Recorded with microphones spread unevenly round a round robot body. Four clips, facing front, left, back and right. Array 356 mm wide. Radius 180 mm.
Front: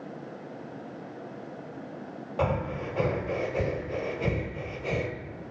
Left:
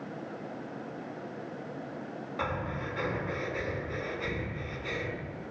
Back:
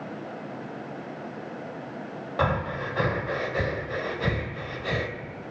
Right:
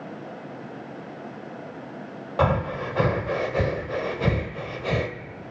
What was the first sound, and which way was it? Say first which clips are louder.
Breathing: right 12 dB, back 2 dB; 100° right.